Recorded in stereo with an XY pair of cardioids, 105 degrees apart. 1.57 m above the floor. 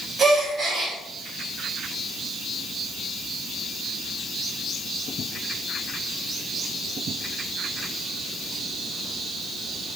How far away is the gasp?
About 1.9 m.